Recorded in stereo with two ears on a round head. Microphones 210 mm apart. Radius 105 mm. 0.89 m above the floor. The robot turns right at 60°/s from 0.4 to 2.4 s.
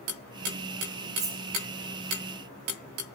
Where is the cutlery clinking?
20° right (ahead or behind), 1.2 m; by 1.4 s 5° right (ahead or behind), 1.2 m.